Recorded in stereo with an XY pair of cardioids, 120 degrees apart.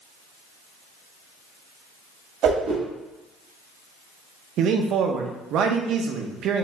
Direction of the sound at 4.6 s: 65° right.